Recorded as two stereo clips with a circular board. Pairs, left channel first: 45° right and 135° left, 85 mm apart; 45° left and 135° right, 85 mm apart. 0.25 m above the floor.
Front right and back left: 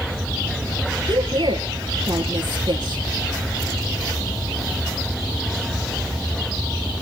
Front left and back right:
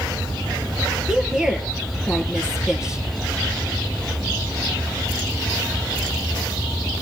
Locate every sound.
1.1 s a woman speaking: 145° left, 5 m